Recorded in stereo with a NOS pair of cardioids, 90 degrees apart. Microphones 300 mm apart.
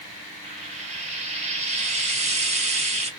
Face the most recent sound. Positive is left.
turn(degrees=-20)